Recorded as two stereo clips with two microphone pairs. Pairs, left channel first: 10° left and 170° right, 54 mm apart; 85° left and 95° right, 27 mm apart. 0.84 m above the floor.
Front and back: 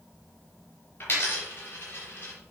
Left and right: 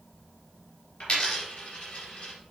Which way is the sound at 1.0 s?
60° left.